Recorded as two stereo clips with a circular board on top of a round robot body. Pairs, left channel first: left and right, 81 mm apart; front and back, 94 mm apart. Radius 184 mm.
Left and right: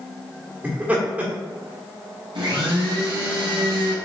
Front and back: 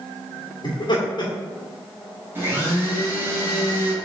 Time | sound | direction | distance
0.6 | laughter | 20° right | 2.0 m
2.4 | a blender | 110° right | 2.5 m